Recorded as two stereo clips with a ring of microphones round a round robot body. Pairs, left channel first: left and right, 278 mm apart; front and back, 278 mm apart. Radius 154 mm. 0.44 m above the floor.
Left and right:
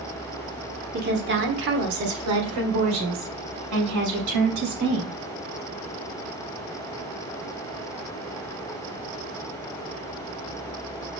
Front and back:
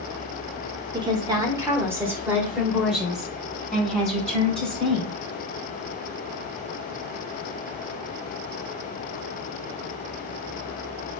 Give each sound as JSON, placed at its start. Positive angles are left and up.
{"t": 0.9, "sound": "a woman speaking", "azimuth_deg": -120, "distance_m": 1.3}